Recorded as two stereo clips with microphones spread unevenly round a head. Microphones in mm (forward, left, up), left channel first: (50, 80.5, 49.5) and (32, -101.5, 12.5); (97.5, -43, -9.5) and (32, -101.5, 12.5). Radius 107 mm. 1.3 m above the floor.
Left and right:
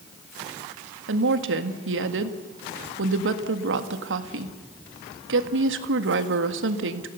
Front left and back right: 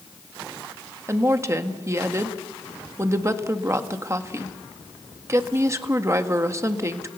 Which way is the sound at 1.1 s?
80° right.